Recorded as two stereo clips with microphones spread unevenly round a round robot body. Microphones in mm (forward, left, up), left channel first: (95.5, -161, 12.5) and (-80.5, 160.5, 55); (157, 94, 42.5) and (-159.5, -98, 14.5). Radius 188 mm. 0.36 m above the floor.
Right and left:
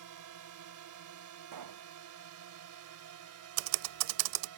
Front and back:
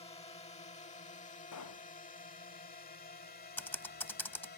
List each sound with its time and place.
0.0 s a drone: 105° left; by 4.6 s 90° left
1.5 s a pop: 80° left
3.6 s typing on a keyboard: 115° left